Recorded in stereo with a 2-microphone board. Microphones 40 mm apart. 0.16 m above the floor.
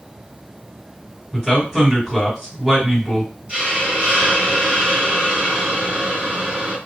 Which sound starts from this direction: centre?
A man speaking, at 1.3 s.